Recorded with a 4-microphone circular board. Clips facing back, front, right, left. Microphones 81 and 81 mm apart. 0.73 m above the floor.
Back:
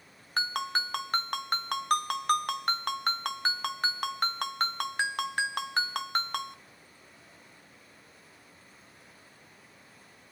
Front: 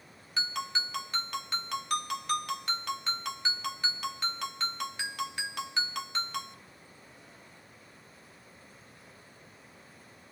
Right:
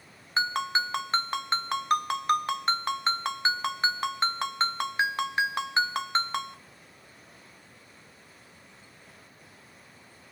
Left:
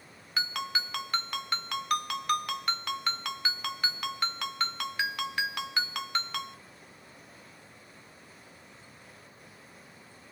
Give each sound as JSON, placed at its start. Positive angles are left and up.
{"t": 0.4, "sound": "a ringtone", "azimuth_deg": -145, "distance_m": 0.8}